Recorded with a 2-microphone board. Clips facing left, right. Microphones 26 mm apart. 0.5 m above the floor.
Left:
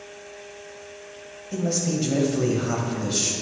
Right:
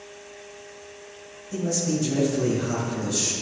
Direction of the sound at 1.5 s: 45° left (ahead or behind).